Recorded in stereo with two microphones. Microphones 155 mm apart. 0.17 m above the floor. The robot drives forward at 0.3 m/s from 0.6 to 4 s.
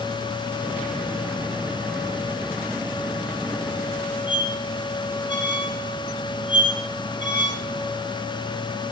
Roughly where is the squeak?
Right.